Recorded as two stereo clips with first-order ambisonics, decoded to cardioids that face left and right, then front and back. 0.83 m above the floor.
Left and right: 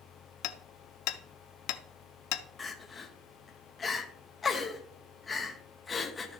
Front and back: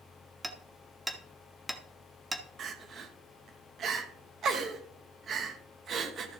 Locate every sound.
0.4 s hammering: 95° left, 0.8 m
2.6 s crying: 155° left, 0.9 m